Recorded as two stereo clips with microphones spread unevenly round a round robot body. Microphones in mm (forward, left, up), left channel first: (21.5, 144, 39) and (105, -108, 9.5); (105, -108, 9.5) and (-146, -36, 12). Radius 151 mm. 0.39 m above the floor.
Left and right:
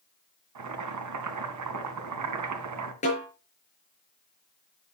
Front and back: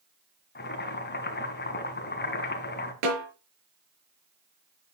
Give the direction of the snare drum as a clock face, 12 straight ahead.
6 o'clock.